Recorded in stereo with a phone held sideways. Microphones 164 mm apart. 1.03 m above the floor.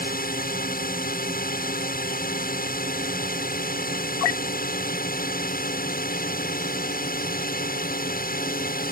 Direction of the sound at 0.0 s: 60° left (ahead or behind).